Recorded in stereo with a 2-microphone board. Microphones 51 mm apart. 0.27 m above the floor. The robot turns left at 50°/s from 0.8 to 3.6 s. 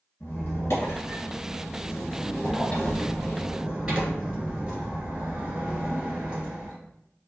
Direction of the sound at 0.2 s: 120° left.